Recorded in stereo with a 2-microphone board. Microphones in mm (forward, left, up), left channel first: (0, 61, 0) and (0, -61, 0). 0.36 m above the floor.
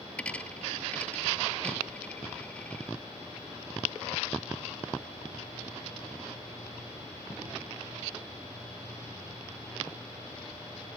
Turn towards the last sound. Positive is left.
turn(degrees=10)  # may be behind; listen again after turning